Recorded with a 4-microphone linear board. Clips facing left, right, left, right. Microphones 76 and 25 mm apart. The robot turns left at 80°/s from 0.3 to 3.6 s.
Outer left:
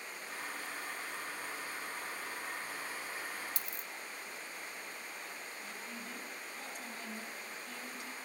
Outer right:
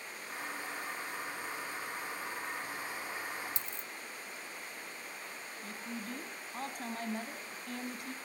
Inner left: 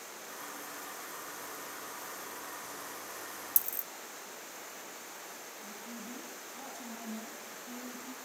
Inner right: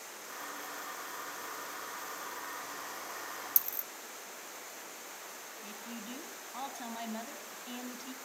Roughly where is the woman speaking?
Right.